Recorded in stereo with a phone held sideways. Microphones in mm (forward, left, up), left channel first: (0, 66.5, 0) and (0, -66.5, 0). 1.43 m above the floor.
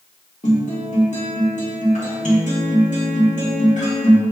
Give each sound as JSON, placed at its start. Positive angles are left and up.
{"t": 0.4, "sound": "a guitar", "side_deg": 65, "distance_m": 1.4}